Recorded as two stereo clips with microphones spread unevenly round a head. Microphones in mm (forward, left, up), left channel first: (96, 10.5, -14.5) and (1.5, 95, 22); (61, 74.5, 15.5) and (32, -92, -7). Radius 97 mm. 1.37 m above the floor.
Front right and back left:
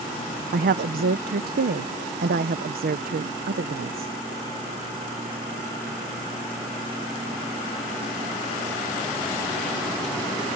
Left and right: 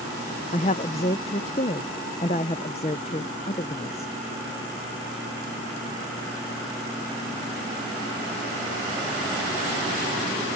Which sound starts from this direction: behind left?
A woman speaking, at 0.5 s.